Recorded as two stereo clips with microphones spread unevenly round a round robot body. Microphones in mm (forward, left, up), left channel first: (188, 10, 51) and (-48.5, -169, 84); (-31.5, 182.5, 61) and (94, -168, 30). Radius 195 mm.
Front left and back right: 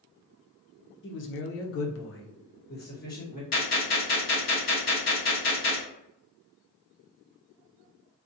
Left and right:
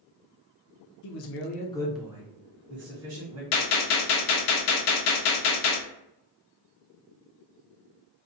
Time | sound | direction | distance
1.0 | a man speaking | 75° left | 0.6 m
3.5 | a gunshot | 100° left | 0.8 m